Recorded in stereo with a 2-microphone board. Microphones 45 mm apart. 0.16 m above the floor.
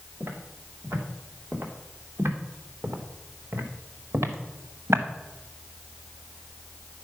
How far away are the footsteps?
About 4.5 m.